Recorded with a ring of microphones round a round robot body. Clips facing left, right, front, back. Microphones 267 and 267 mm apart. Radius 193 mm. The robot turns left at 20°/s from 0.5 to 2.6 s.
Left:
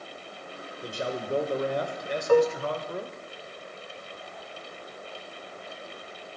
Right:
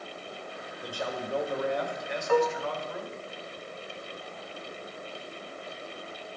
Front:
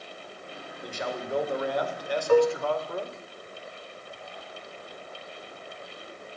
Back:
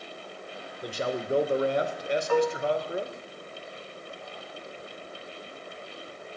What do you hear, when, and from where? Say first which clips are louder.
0.8 s a man speaking: left 3 dB, back 4 dB; 150° left, 1.5 m; by 3.2 s 115° left, 1.5 m
2.3 s dishes clattering: left 5 dB, front 6 dB; 45° left, 1.3 m; by 2.6 s 35° left, 1.3 m